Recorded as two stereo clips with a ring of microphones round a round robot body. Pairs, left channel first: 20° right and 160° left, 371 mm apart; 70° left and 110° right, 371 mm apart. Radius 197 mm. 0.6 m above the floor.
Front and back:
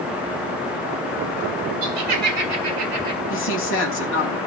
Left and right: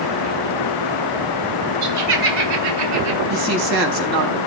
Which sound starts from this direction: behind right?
Laughter, at 1.8 s.